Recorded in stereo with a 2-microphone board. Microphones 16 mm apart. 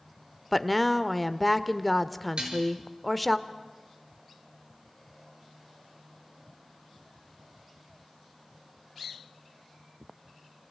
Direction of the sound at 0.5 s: 10° left (ahead or behind).